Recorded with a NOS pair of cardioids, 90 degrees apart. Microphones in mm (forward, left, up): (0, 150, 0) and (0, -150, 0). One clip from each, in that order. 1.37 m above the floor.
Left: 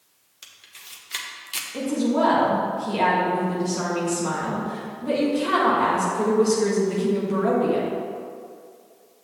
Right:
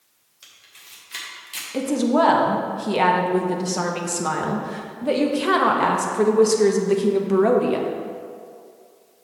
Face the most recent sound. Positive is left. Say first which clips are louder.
# right 4 dB
turn(degrees=-45)